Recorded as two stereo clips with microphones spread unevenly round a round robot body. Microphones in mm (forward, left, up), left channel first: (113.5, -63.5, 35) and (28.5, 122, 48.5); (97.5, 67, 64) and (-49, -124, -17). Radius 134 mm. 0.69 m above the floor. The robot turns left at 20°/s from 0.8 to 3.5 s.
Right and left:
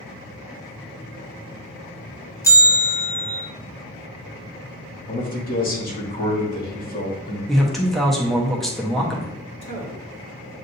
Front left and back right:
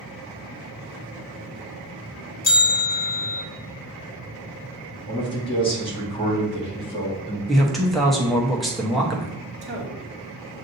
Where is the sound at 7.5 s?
145° right, 0.8 m.